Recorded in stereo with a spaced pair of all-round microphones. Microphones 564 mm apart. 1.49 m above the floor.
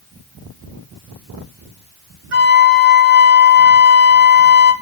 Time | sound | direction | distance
2.3 | a flute | 65° right (ahead or behind) | 2.5 m